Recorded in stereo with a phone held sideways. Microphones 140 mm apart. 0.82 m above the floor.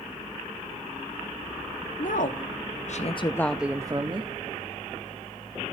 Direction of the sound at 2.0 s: 70° left (ahead or behind).